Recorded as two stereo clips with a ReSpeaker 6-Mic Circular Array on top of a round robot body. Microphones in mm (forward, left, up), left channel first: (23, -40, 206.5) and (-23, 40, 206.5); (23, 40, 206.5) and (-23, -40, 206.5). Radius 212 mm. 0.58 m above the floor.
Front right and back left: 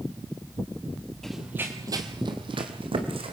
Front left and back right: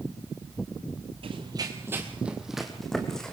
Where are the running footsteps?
145° right, 1.0 m; by 3.3 s 145° left, 2.5 m.